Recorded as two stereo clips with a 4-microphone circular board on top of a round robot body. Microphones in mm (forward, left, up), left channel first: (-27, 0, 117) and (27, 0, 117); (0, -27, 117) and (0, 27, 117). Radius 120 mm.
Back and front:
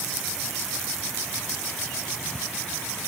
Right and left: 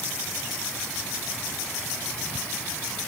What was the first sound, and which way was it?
Only background noise.